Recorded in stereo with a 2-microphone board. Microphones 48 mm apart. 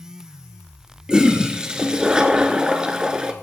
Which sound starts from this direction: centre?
A toilet flushing, at 1.1 s.